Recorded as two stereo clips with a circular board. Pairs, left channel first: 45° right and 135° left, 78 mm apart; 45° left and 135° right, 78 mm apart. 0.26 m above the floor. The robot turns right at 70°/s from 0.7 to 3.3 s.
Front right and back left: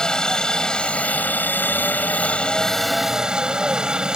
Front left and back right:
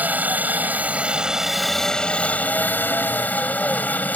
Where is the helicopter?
110° right; by 4.2 s 70° left.